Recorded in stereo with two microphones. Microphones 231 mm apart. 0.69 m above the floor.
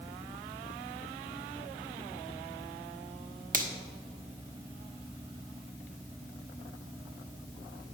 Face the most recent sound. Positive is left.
turn(degrees=-35)  # may be behind; listen again after turning